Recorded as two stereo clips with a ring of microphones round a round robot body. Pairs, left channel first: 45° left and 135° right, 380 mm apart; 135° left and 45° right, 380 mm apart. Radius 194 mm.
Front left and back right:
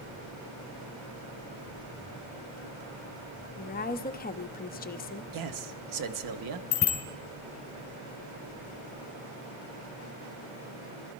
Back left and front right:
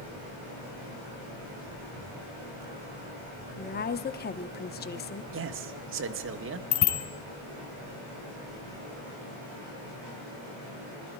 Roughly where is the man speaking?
Right.